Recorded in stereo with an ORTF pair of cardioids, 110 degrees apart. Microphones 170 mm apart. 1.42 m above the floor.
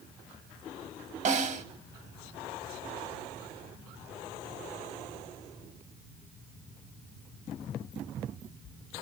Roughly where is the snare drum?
Ahead right.